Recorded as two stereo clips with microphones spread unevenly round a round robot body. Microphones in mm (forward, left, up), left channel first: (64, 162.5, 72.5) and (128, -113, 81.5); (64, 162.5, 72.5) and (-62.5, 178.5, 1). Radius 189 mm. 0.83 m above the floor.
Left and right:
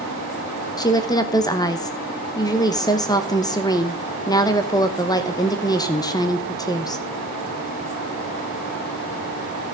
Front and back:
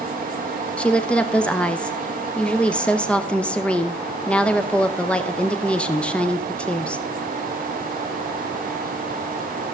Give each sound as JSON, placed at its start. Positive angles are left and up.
{"t": 0.8, "sound": "a woman speaking", "azimuth_deg": 150, "distance_m": 0.9}